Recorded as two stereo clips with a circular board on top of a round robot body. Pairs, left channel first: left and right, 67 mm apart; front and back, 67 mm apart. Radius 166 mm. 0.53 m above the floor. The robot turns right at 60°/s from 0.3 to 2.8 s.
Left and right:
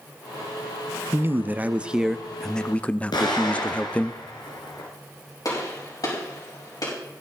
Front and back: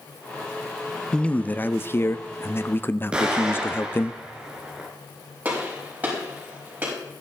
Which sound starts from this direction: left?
An explosion, at 3.1 s.